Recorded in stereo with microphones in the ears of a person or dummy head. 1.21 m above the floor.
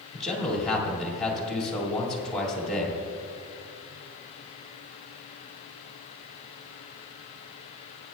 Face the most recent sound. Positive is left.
turn(degrees=5)  # may be behind; listen again after turning